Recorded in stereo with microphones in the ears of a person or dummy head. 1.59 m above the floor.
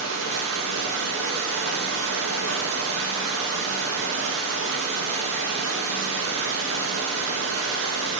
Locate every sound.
0.0 s running water: 70° right (ahead or behind), 1.6 m